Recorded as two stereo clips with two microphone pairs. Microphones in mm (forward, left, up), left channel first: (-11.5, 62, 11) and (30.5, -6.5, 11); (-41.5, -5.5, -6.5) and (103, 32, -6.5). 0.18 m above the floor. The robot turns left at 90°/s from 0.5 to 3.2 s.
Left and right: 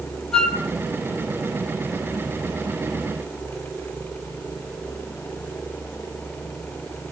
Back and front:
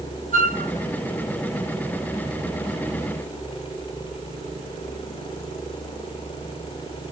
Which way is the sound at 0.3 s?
40° left.